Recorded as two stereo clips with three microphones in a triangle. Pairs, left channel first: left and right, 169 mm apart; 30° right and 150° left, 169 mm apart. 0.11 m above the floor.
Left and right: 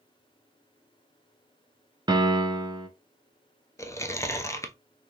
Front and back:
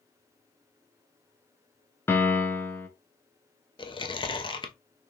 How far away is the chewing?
About 0.5 m.